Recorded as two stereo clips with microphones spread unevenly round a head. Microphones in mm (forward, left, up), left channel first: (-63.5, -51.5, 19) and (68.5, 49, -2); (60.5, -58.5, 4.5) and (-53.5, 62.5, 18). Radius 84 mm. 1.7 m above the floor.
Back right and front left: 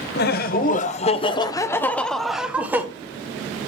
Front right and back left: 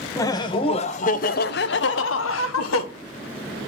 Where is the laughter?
120° right, 1.0 m; by 2.9 s 45° right, 1.2 m.